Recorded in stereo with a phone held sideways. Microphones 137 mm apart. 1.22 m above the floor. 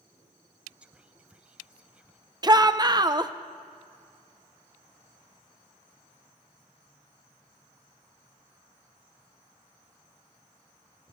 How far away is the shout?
About 0.7 m.